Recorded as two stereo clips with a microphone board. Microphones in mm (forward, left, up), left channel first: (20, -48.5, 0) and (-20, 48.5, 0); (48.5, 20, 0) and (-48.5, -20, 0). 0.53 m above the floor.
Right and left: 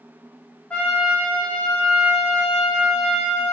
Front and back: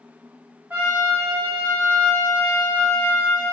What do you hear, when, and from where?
0.7 s a trumpet: 120° right, 0.6 m